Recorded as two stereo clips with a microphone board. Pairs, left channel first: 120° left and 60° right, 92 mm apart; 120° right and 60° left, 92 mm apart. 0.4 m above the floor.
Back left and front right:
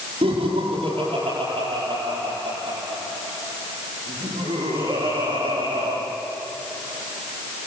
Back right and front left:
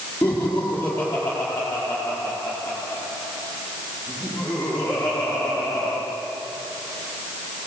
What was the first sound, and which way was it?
Laughter, 50° right.